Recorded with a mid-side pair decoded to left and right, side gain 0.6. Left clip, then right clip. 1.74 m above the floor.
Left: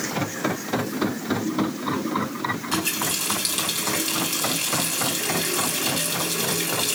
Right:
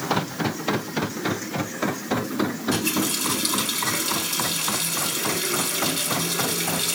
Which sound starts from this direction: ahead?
A running tap, at 2.7 s.